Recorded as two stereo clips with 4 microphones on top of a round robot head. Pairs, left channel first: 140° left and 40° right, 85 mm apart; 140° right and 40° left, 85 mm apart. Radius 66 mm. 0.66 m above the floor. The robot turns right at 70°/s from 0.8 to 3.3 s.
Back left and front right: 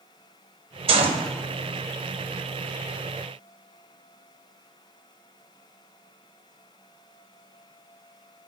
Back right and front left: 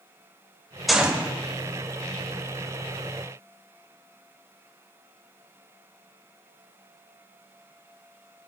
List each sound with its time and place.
0.9 s a gunshot: 50° right, 1.3 m; by 1.3 s 20° right, 1.3 m